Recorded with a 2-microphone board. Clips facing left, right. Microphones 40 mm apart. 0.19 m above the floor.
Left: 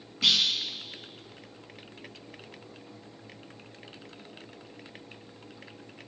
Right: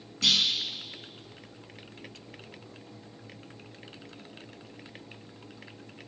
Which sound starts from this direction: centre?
A clunk, at 0.2 s.